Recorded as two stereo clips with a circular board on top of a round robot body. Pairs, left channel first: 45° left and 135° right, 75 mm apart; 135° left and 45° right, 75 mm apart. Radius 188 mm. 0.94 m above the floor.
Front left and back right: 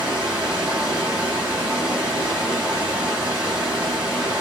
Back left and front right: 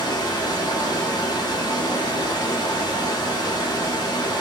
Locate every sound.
0.0 s running water: 150° left, 1.8 m